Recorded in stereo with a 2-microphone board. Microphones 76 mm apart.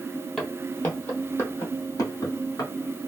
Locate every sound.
0.4 s footsteps: 10° left (ahead or behind), 1.2 m; by 2.7 s 45° left (ahead or behind), 2 m